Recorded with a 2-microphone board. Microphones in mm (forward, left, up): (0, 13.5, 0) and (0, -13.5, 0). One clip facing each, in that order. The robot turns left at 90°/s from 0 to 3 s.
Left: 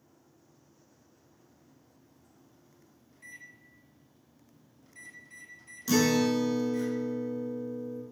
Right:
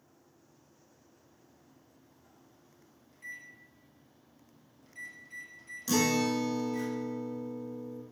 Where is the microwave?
5° right (ahead or behind), 1.9 m.